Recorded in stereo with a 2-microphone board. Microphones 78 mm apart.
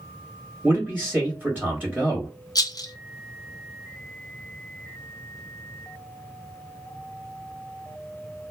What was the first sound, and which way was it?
A man speaking, 15° right (ahead or behind).